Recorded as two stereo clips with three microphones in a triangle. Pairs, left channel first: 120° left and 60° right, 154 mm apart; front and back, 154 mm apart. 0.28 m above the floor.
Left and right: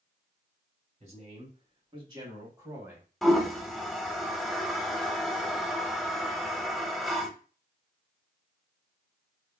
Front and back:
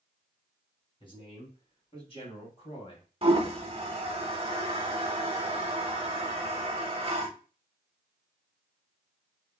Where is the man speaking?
45° right, 2.5 m; by 3.1 s 10° left, 1.9 m.